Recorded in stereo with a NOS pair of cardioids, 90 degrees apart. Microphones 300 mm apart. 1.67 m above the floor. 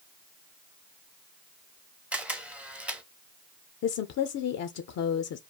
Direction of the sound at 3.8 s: 60° left.